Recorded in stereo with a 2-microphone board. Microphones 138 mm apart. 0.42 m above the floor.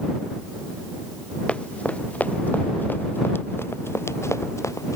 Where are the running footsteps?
10° left (ahead or behind); by 5.0 s 25° left (ahead or behind).